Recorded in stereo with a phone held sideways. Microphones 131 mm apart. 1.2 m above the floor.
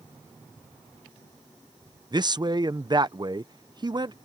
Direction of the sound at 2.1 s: 35° right (ahead or behind).